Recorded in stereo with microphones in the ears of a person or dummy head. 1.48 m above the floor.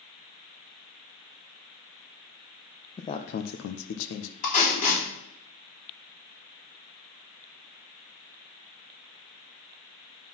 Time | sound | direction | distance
3.0 | a man speaking | 20° left (ahead or behind) | 0.5 m
4.4 | tape being pulled | 40° left (ahead or behind) | 3 m